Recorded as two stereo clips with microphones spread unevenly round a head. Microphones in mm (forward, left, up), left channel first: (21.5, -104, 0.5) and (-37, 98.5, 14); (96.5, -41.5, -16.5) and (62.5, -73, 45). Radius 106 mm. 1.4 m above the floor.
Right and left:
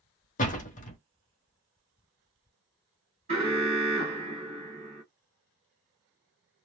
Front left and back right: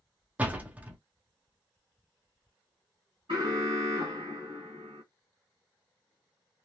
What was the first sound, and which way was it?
A door slam, 130° right.